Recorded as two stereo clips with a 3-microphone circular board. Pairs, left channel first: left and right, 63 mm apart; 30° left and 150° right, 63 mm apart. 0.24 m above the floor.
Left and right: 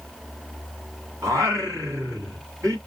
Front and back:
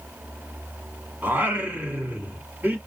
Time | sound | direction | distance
1.2 | singing | 95° right | 2 m